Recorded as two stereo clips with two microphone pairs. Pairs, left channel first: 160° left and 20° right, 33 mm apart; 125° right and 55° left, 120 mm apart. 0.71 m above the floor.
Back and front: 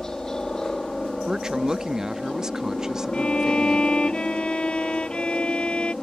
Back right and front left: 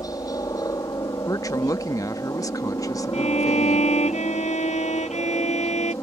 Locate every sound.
0.0 s a helicopter: 145° right
1.3 s a woman speaking: 80° right
3.1 s a violin: 145° right